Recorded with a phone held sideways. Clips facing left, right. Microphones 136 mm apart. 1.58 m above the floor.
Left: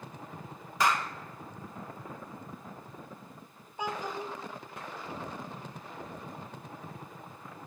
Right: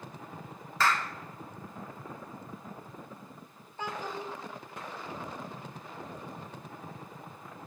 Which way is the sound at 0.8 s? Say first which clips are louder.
Left 1 dB; 15° left (ahead or behind).